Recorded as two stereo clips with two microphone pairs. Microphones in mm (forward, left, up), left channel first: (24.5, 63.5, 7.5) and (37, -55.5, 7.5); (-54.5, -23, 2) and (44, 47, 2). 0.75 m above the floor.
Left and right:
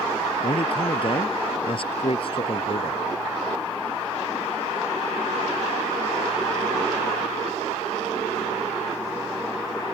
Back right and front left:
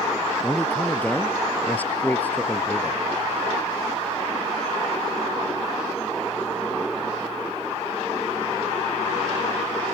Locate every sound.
0.4 s a man speaking: 140° left